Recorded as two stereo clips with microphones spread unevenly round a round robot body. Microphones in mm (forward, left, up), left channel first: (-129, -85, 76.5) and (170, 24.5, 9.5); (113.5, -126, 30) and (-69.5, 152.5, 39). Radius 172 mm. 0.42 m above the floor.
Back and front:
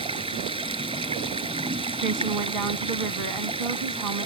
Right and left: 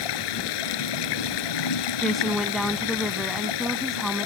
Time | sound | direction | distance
0.0 | running water | 55° right | ?
2.0 | a woman speaking | 35° left | ?